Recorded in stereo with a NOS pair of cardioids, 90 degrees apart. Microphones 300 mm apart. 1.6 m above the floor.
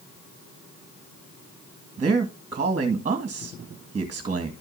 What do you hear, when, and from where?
2.0 s a man speaking: 25° right, 1.9 m